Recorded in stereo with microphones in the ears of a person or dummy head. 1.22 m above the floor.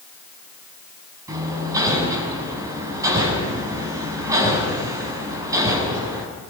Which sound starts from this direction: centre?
Hammering, at 1.3 s.